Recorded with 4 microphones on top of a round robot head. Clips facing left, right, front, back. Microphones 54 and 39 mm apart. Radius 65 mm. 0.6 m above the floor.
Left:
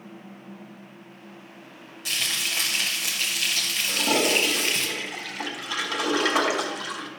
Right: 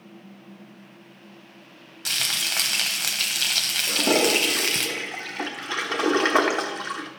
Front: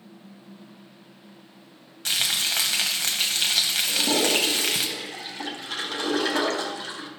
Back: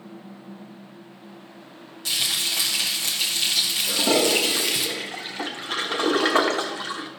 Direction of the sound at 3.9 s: 130° right.